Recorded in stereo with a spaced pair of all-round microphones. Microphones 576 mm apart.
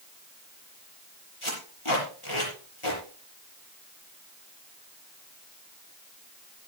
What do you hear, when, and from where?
1.4 s tape being pulled: 55° left (ahead or behind), 6 m